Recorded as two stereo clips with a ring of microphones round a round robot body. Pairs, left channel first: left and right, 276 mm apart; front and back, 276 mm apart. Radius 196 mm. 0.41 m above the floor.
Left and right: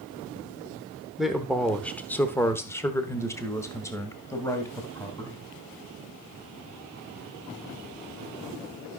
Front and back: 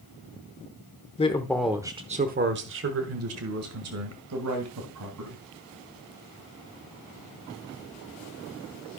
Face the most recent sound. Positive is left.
turn(degrees=170)